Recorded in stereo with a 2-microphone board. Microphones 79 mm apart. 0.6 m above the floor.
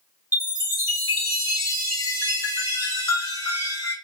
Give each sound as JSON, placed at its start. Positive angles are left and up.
{"t": 0.3, "sound": "a chime", "side_deg": 50, "distance_m": 1.2}